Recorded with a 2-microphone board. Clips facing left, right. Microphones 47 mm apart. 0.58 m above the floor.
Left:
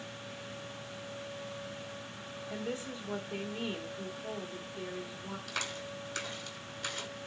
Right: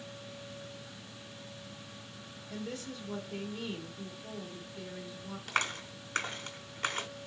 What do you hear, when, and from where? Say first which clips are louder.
2.5 s a woman speaking: left 2 dB; 35° left (ahead or behind), 1.4 m
5.5 s a clap: right 7 dB; 55° right (ahead or behind), 1.4 m